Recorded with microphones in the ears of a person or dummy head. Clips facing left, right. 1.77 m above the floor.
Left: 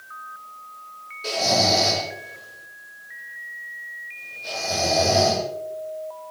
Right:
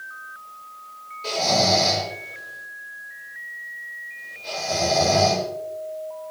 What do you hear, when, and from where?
1.2 s snoring: 15° left (ahead or behind), 8.5 m